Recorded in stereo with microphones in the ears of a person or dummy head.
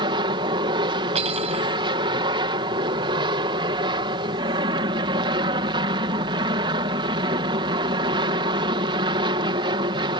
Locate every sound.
0.0 s an aircraft: 25° right (ahead or behind)
1.1 s cutlery clinking: 35° right (ahead or behind)